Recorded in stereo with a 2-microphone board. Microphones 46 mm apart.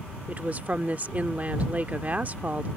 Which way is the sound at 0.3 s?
35° right (ahead or behind).